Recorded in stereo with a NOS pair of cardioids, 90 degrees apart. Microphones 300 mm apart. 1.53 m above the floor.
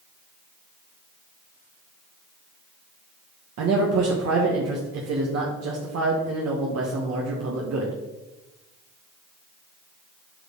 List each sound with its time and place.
3.6 s a man speaking: 60° right, 1.3 m